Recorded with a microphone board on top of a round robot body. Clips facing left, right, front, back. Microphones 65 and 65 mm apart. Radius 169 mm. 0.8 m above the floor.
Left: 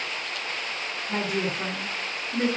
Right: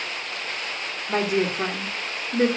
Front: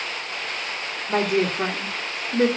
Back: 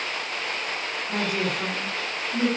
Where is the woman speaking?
45° right, 2.5 m.